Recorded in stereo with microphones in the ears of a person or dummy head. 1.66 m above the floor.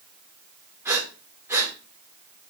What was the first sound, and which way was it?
Breathing, 10° right (ahead or behind).